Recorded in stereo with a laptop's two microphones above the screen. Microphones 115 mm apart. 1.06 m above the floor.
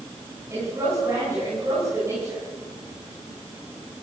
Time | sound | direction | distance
0.5 | a woman speaking | 25° right (ahead or behind) | 10 m